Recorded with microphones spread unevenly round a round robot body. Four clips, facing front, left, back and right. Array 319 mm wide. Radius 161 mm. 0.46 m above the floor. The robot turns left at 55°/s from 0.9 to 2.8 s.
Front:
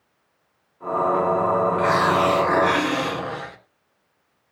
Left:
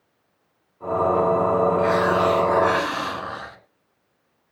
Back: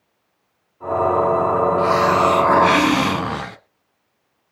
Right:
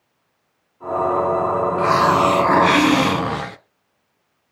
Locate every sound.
1.8 s a hiss: 70° right, 1.6 m; by 3.6 s 125° right, 1.6 m